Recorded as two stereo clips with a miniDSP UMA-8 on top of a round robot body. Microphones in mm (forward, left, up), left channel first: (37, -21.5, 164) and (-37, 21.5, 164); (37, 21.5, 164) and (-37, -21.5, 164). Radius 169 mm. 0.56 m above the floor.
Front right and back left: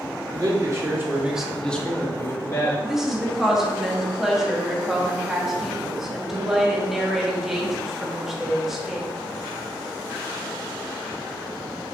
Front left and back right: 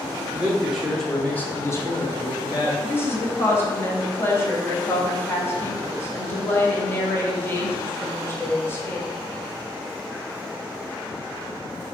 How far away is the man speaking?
About 1.6 m.